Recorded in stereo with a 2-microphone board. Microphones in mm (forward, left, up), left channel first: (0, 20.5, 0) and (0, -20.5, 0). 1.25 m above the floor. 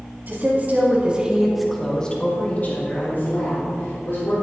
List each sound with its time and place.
0.3 s a woman speaking: 50° right (ahead or behind), 2.5 m; by 4.3 s 65° left (ahead or behind), 4.5 m